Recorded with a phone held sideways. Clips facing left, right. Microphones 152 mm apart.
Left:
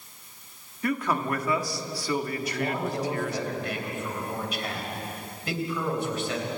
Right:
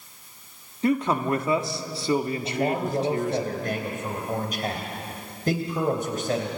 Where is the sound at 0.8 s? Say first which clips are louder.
Right 4 dB; 25° right (ahead or behind), 1.5 m.